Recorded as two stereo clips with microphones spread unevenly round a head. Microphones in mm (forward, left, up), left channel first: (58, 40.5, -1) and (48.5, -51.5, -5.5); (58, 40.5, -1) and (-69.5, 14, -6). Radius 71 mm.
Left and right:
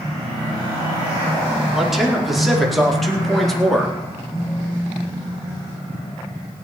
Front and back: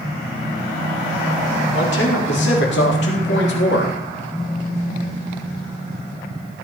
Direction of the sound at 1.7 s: 10° right.